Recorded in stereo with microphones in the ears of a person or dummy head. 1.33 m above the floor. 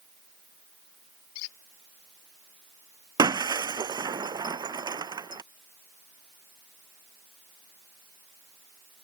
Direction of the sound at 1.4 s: 85° left.